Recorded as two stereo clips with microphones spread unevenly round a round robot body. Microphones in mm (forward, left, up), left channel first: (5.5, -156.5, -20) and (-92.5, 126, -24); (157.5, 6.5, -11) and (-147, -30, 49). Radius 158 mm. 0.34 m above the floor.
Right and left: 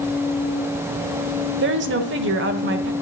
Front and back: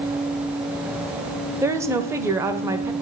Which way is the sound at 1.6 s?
95° left.